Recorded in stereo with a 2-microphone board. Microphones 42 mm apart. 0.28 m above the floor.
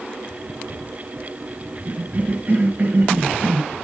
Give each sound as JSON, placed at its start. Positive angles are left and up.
{"t": 1.9, "sound": "a cough", "side_deg": -40, "distance_m": 1.6}